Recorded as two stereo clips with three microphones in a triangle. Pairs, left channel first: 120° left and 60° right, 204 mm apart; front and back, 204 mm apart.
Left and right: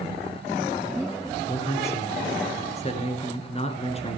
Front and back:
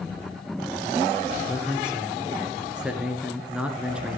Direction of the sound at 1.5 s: 100° left.